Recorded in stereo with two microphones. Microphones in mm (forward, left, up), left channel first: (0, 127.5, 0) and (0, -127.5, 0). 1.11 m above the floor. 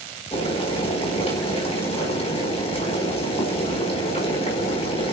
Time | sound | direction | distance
0.3 | boiling | 25° left (ahead or behind) | 4.5 m